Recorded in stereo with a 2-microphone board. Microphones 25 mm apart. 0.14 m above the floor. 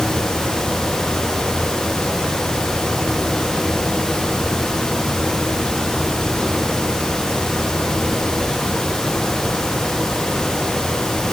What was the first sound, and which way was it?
Only background noise.